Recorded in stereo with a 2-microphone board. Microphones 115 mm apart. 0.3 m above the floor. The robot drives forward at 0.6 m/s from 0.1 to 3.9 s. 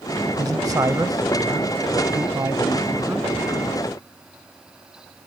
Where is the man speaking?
35° right (ahead or behind); by 3.3 s 20° right (ahead or behind).